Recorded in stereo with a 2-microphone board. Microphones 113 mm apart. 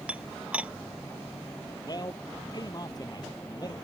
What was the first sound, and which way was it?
Dishes clattering, 10° right (ahead or behind).